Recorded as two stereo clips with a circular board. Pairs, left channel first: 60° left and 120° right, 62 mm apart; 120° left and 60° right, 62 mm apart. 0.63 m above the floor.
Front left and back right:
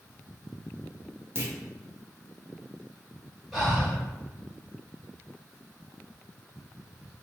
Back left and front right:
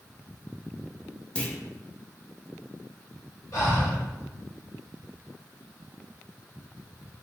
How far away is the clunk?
About 0.6 m.